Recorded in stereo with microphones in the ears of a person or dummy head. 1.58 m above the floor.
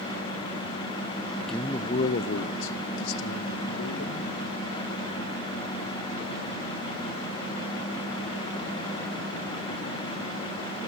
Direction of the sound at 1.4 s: 5° right (ahead or behind).